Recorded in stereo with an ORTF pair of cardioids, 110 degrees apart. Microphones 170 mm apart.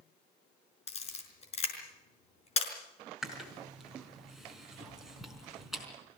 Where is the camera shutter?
40° left, 5.5 m.